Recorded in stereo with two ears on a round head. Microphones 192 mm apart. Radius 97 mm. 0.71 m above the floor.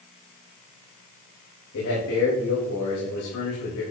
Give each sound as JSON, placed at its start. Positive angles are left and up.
{"t": 1.7, "sound": "a man speaking", "side_deg": 75, "distance_m": 4.0}